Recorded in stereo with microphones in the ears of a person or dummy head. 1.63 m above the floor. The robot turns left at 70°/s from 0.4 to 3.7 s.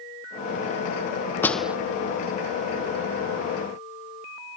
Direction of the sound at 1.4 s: 10° left (ahead or behind).